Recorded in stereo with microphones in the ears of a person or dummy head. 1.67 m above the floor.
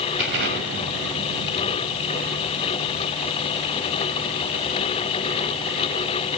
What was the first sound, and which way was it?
An explosion, 65° right (ahead or behind).